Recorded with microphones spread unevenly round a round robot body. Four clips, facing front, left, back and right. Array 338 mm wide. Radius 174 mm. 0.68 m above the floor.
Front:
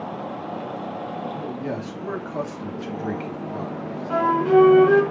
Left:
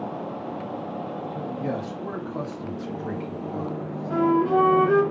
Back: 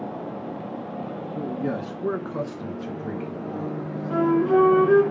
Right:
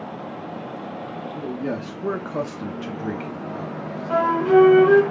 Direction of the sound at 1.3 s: 135° right.